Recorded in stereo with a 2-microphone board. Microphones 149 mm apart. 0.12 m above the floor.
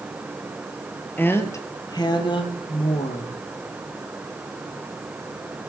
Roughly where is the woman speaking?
Centre.